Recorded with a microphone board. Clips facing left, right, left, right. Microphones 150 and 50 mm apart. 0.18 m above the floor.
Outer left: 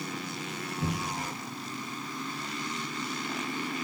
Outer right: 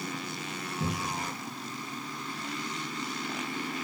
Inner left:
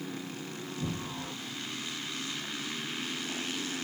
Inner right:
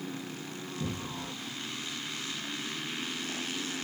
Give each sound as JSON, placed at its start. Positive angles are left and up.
{"t": 0.8, "sound": "a cupboard door", "side_deg": -25, "distance_m": 1.7}